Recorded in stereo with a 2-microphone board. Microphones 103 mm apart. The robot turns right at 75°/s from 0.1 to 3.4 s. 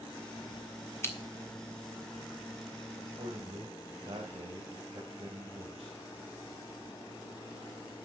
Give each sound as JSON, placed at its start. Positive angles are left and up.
{"t": 1.0, "sound": "scissors", "side_deg": 25, "distance_m": 1.5}
{"t": 3.0, "sound": "a man speaking", "azimuth_deg": -105, "distance_m": 2.5}